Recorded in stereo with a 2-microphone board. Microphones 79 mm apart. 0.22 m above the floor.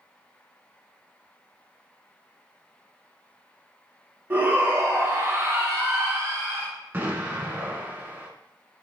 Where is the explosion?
25° right (ahead or behind), 0.7 m.